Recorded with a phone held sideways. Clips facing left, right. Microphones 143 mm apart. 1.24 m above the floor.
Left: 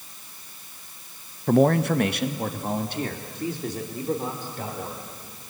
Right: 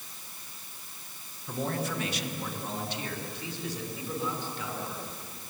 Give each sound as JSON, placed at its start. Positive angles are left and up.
{"t": 1.5, "sound": "a man speaking", "side_deg": 85, "distance_m": 0.7}